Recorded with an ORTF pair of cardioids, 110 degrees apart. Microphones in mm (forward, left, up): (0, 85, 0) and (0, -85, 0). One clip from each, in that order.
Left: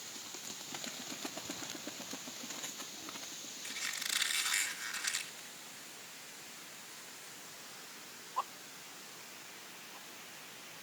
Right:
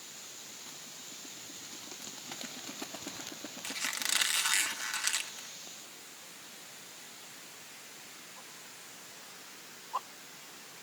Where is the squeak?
60° right, 1.8 m.